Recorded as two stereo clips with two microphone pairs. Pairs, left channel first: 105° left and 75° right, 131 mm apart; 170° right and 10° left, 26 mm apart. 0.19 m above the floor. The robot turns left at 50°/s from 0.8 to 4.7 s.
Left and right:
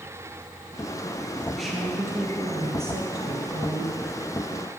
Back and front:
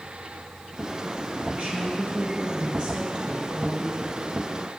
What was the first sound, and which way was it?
A woman speaking, 20° left.